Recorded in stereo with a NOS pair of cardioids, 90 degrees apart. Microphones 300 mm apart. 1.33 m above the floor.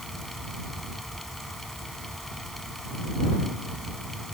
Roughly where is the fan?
Ahead.